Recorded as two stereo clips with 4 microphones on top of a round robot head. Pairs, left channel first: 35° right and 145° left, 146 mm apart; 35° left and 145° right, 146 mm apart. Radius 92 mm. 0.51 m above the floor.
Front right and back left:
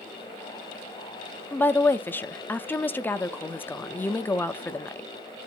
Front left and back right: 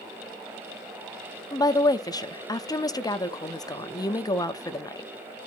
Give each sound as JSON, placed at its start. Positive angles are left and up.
{"t": 1.5, "sound": "a woman speaking", "azimuth_deg": 25, "distance_m": 0.8}